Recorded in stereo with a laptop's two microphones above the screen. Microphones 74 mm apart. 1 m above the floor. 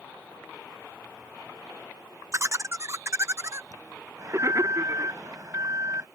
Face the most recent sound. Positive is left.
turn(degrees=-40)  # may be behind; listen again after turning